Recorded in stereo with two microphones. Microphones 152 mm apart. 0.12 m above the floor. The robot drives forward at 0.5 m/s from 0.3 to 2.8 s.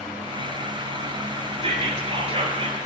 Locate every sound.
1.6 s whispering: 45° right (ahead or behind), 1.8 m; by 2.8 s 40° right (ahead or behind), 2.0 m